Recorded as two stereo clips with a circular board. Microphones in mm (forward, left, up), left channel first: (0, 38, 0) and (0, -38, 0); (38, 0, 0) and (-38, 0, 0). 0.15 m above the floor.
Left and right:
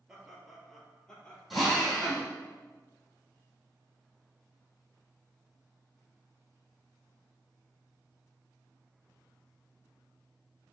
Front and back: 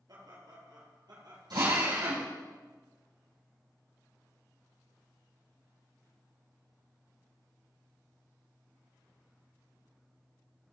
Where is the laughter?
170° right, 3 m; by 1.4 s 165° left, 3.5 m.